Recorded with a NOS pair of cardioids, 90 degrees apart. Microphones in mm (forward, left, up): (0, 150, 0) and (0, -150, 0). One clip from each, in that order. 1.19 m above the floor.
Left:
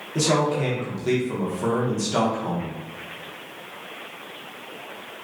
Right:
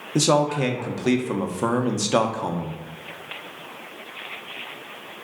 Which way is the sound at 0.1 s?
40° right.